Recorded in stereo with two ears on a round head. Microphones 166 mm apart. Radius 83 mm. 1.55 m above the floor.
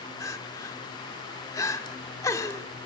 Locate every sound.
0.2 s crying: 20° left (ahead or behind), 1.4 m